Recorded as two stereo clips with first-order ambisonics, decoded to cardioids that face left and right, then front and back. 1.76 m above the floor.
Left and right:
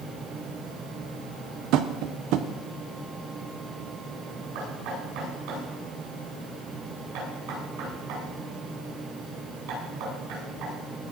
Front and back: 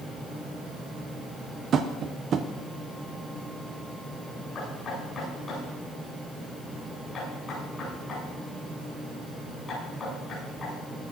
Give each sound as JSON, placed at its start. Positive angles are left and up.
{"t": 1.7, "sound": "tapping", "azimuth_deg": -120, "distance_m": 1.0}
{"t": 4.5, "sound": "knocking", "azimuth_deg": -70, "distance_m": 10.0}